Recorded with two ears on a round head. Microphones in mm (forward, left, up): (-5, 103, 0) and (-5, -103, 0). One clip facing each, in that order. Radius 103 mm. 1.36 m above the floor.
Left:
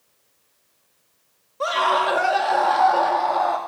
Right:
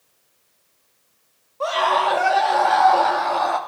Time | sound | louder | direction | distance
1.6 | a scream | right 1 dB | 25° left (ahead or behind) | 3 m